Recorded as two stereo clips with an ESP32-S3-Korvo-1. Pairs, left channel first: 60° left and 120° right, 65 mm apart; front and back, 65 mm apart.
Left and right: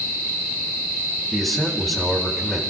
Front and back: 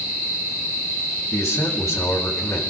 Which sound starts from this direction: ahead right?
A man speaking, at 1.3 s.